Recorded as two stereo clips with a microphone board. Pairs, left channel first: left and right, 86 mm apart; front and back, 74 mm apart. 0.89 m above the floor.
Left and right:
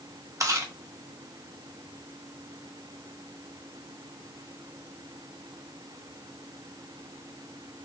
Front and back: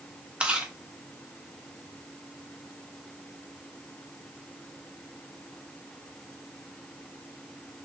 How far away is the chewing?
About 0.8 m.